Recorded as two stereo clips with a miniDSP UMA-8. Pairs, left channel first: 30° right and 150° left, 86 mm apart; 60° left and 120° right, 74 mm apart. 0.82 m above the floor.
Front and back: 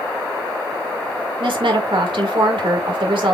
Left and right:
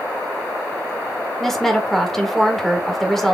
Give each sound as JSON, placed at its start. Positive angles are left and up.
{"t": 1.4, "sound": "a woman speaking", "azimuth_deg": 145, "distance_m": 2.0}